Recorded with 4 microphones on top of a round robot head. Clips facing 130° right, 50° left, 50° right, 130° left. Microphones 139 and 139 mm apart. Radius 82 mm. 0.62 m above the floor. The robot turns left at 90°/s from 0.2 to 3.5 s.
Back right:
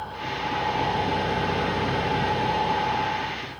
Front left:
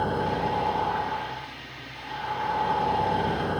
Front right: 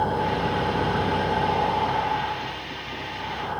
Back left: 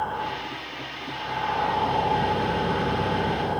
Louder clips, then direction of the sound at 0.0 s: Front left 5 dB, front right 6 dB; 10° left.